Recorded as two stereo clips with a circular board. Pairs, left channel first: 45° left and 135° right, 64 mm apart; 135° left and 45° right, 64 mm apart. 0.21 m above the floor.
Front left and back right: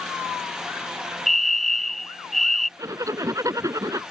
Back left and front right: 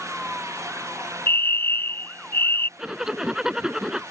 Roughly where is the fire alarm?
Behind left.